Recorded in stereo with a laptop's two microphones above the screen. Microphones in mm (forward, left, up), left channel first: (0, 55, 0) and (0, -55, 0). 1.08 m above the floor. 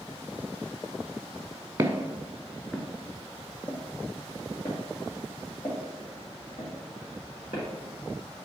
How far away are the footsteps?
About 1.1 m.